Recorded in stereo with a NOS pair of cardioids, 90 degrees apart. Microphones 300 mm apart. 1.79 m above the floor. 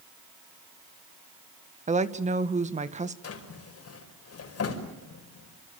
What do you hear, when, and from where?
1.9 s a woman speaking: 25° right, 1.9 m
3.2 s a drawer: 55° left, 5.5 m